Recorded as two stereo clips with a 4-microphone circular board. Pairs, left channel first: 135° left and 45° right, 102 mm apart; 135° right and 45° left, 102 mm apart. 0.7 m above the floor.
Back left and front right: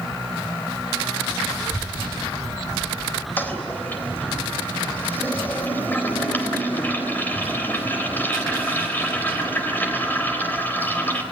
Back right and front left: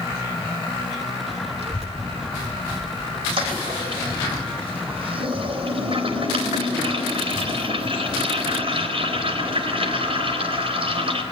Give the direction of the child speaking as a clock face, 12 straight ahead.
10 o'clock.